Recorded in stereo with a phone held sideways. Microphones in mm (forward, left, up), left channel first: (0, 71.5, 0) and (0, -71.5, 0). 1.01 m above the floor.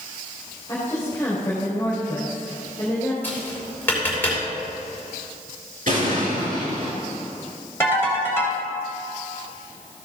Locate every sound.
0.7 s a woman speaking: 20° left (ahead or behind), 4 m
3.2 s tapping: 15° left (ahead or behind), 4 m
5.9 s an explosion: 65° right (ahead or behind), 3.5 m
7.8 s a ringtone: 15° left (ahead or behind), 3.5 m